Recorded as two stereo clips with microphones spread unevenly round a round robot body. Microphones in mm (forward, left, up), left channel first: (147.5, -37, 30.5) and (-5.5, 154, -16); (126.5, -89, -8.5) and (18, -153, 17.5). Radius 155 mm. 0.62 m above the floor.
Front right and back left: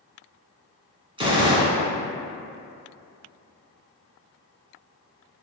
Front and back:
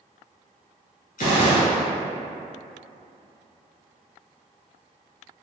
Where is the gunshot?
55° left, 1.4 m.